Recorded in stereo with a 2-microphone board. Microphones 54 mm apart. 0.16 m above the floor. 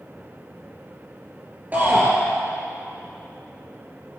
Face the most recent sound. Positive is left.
turn(degrees=-30)  # may be behind; listen again after turning